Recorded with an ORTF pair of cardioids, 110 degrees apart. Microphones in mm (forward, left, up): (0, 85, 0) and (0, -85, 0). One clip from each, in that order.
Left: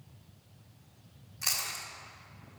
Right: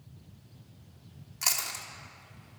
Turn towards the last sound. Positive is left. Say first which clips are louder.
# right 2 dB
turn(degrees=-60)